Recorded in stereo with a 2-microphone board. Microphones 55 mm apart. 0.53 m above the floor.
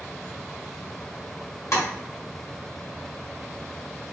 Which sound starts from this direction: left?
Tapping, at 1.7 s.